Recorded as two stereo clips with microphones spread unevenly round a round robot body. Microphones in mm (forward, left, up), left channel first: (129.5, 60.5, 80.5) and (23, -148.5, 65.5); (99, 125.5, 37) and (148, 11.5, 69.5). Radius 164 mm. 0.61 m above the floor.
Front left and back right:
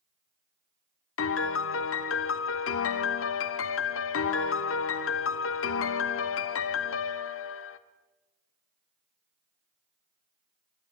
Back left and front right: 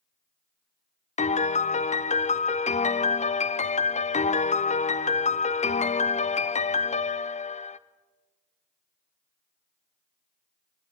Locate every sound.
1.2 s a piano: 100° left, 0.9 m